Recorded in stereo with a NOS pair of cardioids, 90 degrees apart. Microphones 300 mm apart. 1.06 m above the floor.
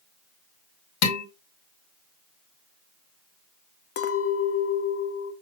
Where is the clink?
50° left, 0.8 m.